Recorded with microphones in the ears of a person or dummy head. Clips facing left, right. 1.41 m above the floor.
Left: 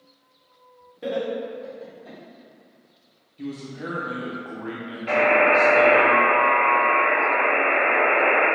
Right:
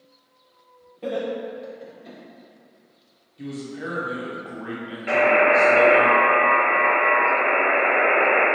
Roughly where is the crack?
I don't hear a crack.